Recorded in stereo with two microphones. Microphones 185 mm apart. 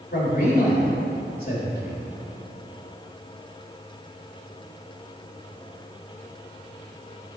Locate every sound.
0.1 s a man speaking: 55° left (ahead or behind), 1.8 m